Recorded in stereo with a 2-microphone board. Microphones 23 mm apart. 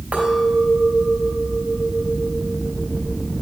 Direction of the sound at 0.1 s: 70° right (ahead or behind).